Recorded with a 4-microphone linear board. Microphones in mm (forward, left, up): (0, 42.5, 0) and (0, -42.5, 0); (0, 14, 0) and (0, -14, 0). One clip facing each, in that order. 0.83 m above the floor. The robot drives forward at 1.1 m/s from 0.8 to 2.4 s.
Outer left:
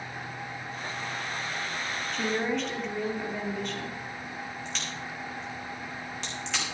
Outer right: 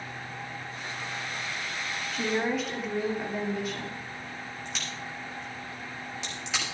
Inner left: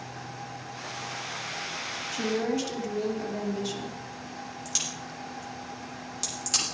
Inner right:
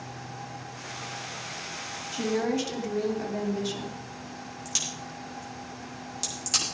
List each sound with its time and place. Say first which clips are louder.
2.1 s a woman speaking: outer right 1 dB, inner right 1 dB; 5° right (ahead or behind), 2 m
4.7 s a crack: outer left 1 dB, inner right 1 dB; centre (ahead or behind), 6 m